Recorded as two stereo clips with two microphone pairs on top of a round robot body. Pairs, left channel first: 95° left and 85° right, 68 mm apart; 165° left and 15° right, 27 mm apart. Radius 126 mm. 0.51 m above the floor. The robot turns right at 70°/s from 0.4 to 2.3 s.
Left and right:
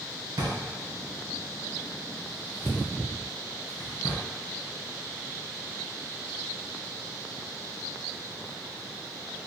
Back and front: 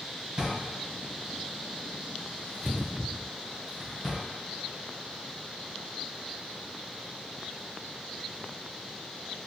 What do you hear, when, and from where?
0.4 s a drawer: 65° right, 1.6 m; by 4.2 s 70° left, 1.6 m